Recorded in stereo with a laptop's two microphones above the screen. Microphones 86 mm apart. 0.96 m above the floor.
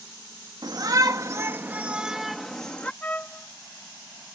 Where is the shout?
50° right (ahead or behind); by 2.9 s 15° left (ahead or behind).